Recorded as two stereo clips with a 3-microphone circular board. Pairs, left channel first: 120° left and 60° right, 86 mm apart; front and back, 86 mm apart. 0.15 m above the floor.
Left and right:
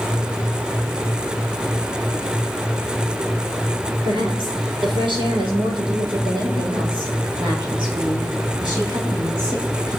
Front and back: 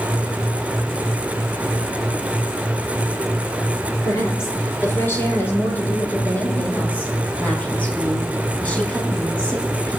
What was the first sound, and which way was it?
A woman speaking, 55° right.